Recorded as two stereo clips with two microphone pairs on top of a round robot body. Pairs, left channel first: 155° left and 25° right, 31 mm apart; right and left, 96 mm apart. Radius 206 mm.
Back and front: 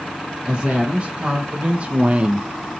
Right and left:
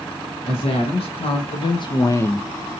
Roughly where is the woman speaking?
Right.